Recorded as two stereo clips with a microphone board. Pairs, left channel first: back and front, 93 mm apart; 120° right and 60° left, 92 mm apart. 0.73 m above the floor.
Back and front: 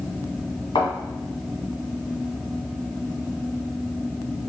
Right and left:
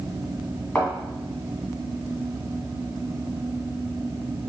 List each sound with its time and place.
0.8 s a thud: 160° left, 2 m